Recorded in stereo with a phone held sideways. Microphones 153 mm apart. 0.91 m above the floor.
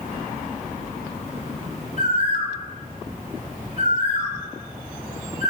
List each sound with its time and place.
2.0 s a bird: 50° left (ahead or behind), 3.5 m